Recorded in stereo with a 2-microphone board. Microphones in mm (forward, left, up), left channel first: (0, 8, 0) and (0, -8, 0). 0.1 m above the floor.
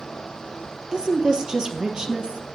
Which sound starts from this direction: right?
A woman speaking, at 0.9 s.